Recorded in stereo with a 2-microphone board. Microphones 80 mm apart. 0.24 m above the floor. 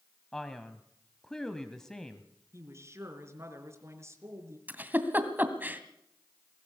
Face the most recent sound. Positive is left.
turn(degrees=-20)  # may be behind; listen again after turning